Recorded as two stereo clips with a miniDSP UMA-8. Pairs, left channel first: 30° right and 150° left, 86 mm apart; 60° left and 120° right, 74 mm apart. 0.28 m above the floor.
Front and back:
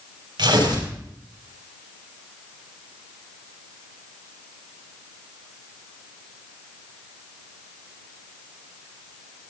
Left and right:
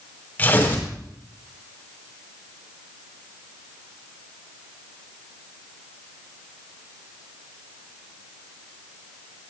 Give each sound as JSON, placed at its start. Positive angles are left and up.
{"t": 0.4, "sound": "tearing paper", "azimuth_deg": 125, "distance_m": 6.5}